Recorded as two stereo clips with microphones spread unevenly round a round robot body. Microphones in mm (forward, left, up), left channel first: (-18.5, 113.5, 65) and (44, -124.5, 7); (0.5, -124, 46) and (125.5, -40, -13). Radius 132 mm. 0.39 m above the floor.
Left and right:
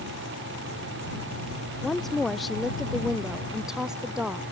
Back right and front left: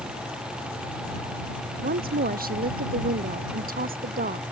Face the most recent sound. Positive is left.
turn(degrees=10)